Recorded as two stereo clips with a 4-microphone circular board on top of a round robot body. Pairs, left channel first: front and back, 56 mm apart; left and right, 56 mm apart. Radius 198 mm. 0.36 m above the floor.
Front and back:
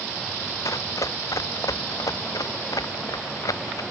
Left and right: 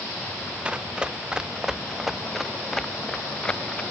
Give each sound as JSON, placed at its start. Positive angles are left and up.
{"t": 0.7, "sound": "running footsteps", "azimuth_deg": -20}